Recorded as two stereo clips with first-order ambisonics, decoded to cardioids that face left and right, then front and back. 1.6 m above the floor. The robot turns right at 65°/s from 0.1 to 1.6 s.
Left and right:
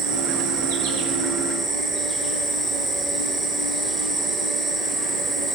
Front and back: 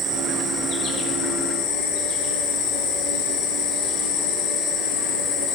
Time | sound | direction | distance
0.0 | an insect | 105° right | 1.4 m